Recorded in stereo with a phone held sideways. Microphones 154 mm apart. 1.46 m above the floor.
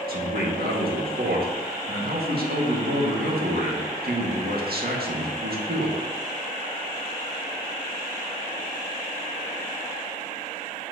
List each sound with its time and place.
0.1 s a man speaking: 85° right, 1.8 m